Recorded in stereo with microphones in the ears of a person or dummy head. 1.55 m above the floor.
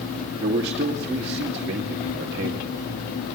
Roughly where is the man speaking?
Right.